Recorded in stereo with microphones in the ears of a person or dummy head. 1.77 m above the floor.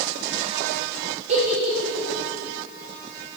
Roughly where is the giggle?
Right.